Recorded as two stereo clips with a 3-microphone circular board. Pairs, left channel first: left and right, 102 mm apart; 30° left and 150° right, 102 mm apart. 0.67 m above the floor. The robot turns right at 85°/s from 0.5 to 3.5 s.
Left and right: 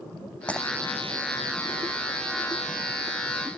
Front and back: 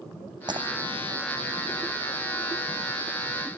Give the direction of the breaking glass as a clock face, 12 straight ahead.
6 o'clock.